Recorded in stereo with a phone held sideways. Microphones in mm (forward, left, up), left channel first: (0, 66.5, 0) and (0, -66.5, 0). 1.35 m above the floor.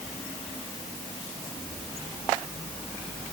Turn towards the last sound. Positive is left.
No sound to turn to.